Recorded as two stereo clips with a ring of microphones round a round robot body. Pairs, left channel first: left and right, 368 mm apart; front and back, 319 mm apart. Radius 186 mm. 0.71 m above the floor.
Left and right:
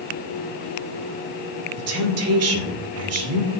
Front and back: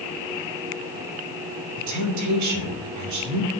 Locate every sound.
1.8 s a woman speaking: 140° right, 2.5 m